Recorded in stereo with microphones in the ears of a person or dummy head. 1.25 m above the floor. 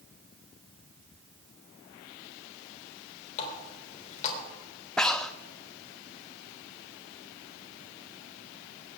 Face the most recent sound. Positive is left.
turn(degrees=0)  # may be behind; listen again after turning